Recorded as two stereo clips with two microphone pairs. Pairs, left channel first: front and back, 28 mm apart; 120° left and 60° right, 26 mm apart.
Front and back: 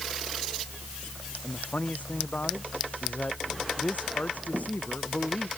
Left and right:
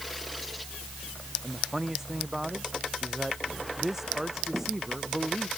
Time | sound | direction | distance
1.4 | a man speaking | 20° left | ?